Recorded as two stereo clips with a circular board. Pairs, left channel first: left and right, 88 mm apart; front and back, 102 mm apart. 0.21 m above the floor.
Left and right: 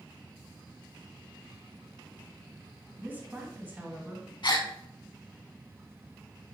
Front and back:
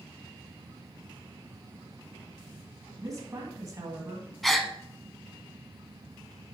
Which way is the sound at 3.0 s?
145° right.